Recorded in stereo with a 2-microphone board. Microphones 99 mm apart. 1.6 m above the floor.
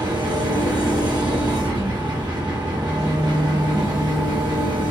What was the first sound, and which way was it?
An engine running, 45° right (ahead or behind).